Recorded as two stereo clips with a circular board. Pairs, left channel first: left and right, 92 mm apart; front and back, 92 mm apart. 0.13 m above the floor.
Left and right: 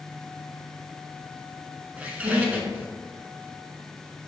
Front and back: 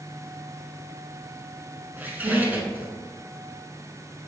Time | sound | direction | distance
2.0 | a squeak | 140° right | 0.5 m